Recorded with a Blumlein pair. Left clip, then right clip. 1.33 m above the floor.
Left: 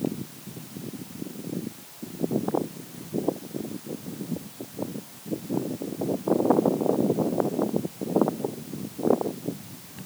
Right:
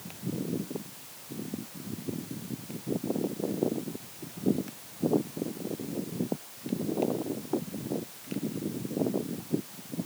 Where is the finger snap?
I don't hear a finger snap.